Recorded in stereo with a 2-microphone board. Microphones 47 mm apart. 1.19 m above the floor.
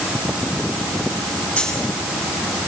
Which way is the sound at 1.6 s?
20° left (ahead or behind).